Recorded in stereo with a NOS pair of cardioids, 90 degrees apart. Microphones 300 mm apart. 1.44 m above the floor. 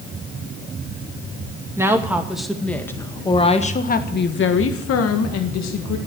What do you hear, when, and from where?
1.8 s a woman speaking: 10° right, 2.5 m; by 6.0 s 75° left, 2 m